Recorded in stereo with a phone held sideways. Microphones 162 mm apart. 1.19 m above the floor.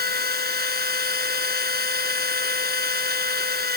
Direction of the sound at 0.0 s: 80° right.